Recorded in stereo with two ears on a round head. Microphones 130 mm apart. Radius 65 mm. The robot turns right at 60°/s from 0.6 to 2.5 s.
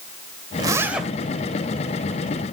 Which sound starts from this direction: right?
A zipper, at 0.6 s.